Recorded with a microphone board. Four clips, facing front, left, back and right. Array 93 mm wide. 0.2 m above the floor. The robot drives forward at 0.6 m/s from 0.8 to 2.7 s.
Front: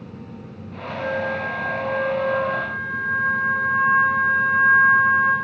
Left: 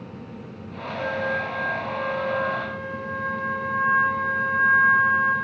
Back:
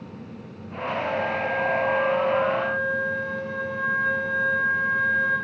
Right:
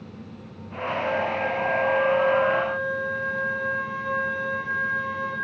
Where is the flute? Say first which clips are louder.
Even, front 2 dB; 35° left, 9 m; by 5.3 s 40° left, 8.5 m.